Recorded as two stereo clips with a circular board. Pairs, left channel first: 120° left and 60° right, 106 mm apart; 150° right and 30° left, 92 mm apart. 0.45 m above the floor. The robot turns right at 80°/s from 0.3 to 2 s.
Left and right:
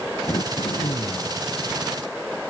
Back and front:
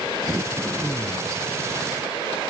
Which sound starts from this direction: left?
Throat clearing, at 0.3 s.